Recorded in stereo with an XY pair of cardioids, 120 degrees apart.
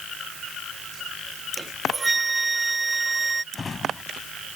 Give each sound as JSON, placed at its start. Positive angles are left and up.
{"t": 1.6, "sound": "a flute", "azimuth_deg": -20}
{"t": 3.5, "sound": "a drawer", "azimuth_deg": 25}